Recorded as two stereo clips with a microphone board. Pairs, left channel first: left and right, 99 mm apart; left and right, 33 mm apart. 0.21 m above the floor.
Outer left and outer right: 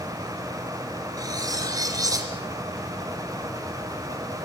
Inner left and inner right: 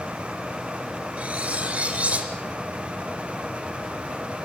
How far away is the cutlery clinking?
About 2.5 m.